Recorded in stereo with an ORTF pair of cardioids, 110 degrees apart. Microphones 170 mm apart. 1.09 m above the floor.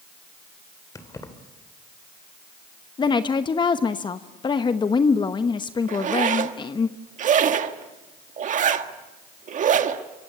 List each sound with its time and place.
0.9 s keys jangling: 20° left, 2.5 m
3.0 s a woman speaking: 25° left, 1.0 m
5.9 s a zipper: 50° right, 1.6 m